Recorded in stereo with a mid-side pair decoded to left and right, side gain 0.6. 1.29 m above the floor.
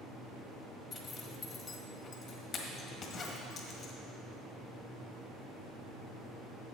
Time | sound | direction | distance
0.9 | a zipper | 50° left | 1.6 m